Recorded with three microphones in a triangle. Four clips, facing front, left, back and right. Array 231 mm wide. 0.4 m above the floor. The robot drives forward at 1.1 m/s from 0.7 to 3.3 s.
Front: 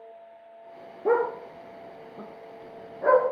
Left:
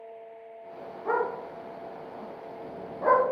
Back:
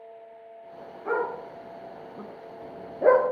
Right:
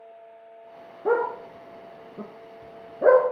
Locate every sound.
1.1 s a dog barking: 35° right, 1.6 m; by 3.3 s 140° right, 1.5 m